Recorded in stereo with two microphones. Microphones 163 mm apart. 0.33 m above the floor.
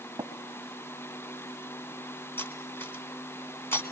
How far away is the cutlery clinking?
About 2.0 m.